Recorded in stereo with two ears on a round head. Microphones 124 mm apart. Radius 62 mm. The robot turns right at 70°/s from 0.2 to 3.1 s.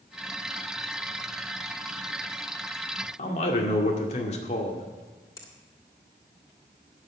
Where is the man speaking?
55° left (ahead or behind), 2 m.